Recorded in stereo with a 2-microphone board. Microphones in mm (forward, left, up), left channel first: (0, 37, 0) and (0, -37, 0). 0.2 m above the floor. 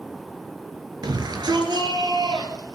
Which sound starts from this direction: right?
A shout, at 1.0 s.